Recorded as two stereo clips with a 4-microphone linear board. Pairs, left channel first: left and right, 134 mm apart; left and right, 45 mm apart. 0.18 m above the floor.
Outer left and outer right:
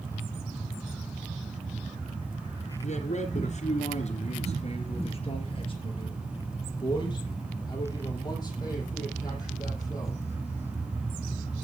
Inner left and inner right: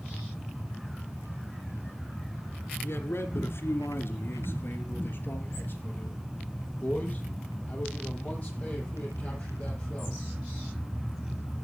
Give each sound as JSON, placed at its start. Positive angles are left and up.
{"t": 2.8, "sound": "a man speaking", "side_deg": 60, "distance_m": 2.0}